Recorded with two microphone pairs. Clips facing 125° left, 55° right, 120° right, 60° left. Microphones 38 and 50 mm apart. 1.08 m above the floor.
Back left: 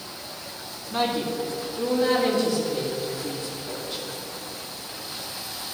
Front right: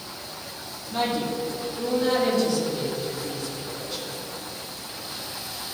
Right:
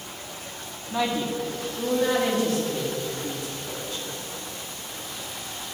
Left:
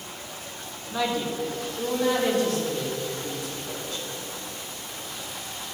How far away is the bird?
No bird in this recording.